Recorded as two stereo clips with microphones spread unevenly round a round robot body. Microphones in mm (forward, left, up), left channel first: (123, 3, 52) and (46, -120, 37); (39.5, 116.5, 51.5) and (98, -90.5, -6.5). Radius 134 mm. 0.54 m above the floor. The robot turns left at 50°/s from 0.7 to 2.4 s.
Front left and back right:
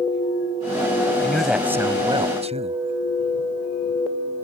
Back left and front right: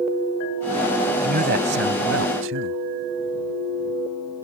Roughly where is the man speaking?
Ahead.